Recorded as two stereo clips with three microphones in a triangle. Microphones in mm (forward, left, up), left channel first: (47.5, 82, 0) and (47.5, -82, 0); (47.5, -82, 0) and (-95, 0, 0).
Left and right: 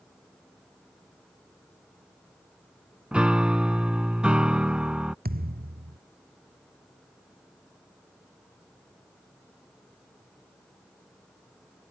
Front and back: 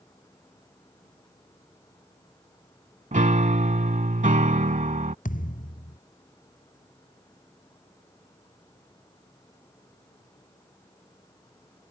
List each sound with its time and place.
3.1 s a piano: 175° right
5.2 s a thud: 65° right